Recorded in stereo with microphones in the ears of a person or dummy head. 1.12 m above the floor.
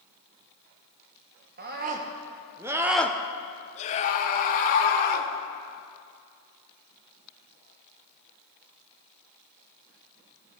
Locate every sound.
1.6 s a scream: 45° right (ahead or behind), 1.2 m; by 5.3 s 50° left (ahead or behind), 1.8 m